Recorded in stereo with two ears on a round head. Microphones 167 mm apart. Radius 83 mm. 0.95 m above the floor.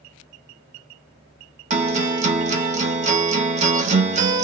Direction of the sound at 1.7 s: 40° right (ahead or behind).